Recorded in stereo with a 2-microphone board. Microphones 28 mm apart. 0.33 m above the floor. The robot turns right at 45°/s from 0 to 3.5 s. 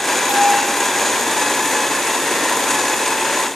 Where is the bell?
60° right (ahead or behind), 4.5 m; by 0.8 s 80° right, 4.5 m.